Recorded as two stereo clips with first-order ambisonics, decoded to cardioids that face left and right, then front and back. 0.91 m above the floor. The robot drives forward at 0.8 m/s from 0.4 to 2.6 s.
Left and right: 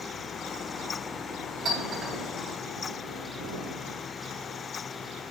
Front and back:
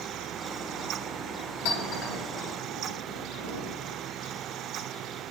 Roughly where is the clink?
Ahead.